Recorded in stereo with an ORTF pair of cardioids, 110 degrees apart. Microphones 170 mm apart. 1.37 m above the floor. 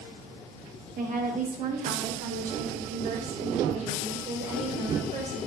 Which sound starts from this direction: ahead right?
A woman speaking, at 1.0 s.